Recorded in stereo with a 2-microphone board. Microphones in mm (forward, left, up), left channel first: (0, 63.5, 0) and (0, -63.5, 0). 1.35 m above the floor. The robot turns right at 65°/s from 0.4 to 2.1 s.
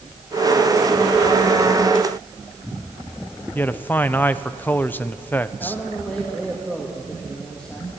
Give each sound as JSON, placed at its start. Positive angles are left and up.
{"t": 3.5, "sound": "a man speaking", "side_deg": 15, "distance_m": 0.7}
{"t": 5.6, "sound": "a man speaking", "side_deg": 10, "distance_m": 2.5}